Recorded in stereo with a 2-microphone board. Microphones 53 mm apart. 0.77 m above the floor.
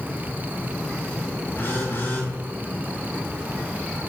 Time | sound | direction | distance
1.6 | a phone buzzing | 40° left (ahead or behind) | 4.5 m